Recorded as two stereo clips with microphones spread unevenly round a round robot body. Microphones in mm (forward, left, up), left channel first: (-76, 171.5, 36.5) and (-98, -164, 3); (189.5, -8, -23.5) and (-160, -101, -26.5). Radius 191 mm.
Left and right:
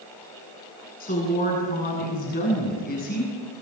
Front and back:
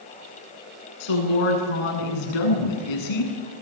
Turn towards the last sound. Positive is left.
turn(degrees=20)